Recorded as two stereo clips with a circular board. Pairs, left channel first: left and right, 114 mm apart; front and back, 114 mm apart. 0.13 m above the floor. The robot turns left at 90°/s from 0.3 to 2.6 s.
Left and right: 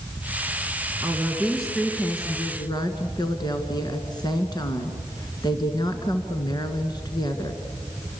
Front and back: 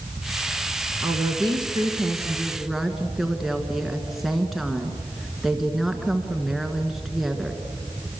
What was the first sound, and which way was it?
A woman speaking, 125° right.